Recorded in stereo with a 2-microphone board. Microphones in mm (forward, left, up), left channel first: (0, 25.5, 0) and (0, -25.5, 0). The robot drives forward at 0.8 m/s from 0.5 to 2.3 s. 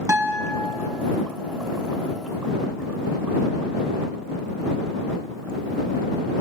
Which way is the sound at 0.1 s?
75° right (ahead or behind).